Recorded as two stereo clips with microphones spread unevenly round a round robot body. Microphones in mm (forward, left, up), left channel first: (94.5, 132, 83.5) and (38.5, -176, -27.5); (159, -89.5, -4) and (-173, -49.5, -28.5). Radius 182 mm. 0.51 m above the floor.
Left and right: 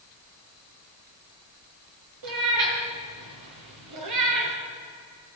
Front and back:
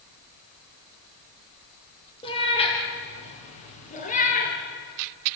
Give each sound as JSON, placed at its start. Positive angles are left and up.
{"t": 2.2, "sound": "a cat meowing", "azimuth_deg": -80, "distance_m": 6.0}